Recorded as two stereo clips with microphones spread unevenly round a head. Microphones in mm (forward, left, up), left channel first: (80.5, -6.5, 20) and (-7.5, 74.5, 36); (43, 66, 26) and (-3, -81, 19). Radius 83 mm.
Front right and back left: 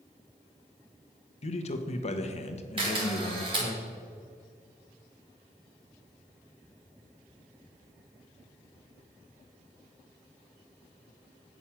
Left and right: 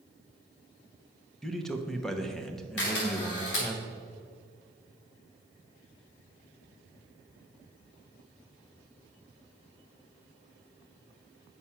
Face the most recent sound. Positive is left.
turn(degrees=95)